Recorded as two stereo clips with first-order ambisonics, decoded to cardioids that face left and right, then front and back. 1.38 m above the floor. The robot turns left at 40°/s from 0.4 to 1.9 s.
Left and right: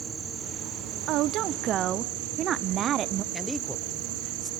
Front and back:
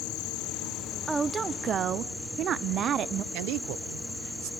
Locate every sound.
0.0 s an insect: 25° right, 0.9 m; by 4.6 s 85° right, 0.9 m
1.1 s a woman speaking: 105° right, 0.5 m; by 3.2 s 135° right, 0.5 m
3.3 s a man speaking: 175° left, 0.7 m